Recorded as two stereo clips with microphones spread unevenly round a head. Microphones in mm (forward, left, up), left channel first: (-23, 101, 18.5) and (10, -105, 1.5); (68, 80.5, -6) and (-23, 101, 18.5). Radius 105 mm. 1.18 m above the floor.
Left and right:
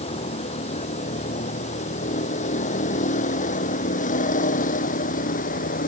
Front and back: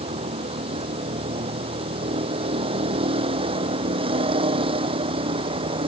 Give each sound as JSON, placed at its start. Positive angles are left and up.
{"t": 0.0, "sound": "a vehicle", "azimuth_deg": 160}